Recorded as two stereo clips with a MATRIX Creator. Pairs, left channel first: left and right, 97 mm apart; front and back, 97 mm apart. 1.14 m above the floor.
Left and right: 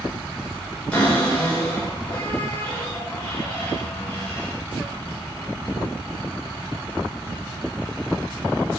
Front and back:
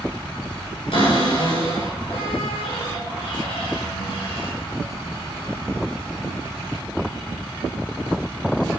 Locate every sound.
0.9 s a cupboard door: 10° left, 5 m